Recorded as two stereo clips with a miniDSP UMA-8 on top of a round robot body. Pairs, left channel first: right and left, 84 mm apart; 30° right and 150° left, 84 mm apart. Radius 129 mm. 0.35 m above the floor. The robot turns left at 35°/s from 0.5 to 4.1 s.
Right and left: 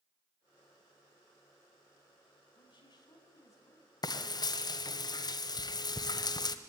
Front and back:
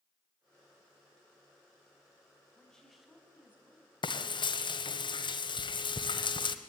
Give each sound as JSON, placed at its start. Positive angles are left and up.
{"t": 2.5, "sound": "a woman speaking", "azimuth_deg": -105, "distance_m": 5.0}
{"t": 4.0, "sound": "frying", "azimuth_deg": -50, "distance_m": 1.4}